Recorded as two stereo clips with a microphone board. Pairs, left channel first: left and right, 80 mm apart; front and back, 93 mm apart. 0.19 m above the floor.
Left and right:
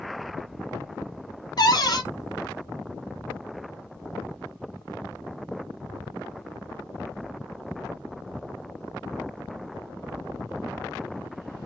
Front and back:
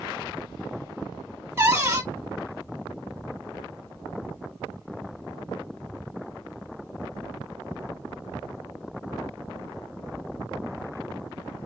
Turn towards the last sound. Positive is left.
turn(degrees=115)